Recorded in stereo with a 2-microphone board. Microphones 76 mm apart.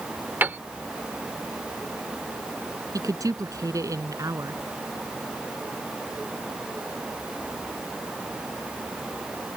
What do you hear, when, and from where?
0.4 s a piano: 25° right (ahead or behind)
2.9 s a woman speaking: 50° right (ahead or behind)